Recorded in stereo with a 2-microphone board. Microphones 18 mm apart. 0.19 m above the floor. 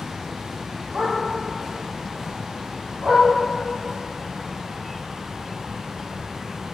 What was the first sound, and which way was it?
A dog barking, 35° right (ahead or behind).